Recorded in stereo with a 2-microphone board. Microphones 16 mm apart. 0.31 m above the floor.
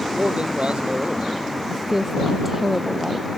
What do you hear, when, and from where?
0.1 s a man speaking: 80° right
1.7 s a woman speaking: 15° right (ahead or behind)